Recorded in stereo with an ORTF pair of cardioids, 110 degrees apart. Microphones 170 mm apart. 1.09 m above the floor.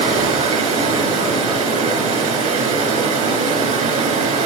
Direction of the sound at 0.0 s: 45° right.